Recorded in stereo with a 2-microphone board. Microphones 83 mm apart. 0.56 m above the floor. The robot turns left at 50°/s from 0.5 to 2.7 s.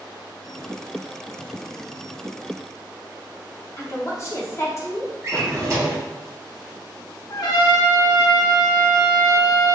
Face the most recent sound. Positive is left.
turn(degrees=60)  # may be behind; listen again after turning